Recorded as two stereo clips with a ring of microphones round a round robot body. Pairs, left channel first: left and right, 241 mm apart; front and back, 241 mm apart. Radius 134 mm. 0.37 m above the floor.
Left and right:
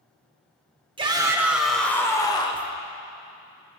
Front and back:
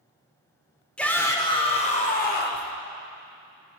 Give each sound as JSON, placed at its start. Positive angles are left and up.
{"t": 1.0, "sound": "a shout", "azimuth_deg": -80, "distance_m": 0.8}